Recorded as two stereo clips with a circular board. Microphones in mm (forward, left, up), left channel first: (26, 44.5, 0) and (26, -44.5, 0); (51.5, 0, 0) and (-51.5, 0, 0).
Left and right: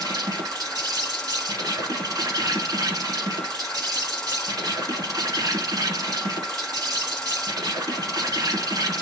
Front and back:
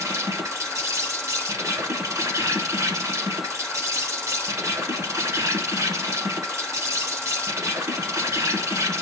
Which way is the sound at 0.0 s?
125° right.